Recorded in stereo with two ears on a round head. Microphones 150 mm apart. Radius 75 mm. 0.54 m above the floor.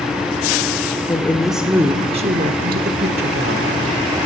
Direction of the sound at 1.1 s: 15° left (ahead or behind).